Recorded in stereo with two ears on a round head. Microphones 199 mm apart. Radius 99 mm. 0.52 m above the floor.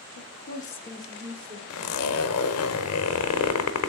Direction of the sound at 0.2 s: 60° left (ahead or behind).